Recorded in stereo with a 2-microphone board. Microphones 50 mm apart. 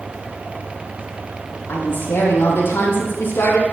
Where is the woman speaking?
60° left (ahead or behind), 4.5 m.